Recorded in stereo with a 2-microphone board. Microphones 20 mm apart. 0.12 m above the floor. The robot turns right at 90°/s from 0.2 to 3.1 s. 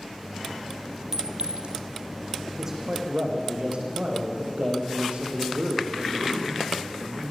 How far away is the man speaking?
About 6.5 m.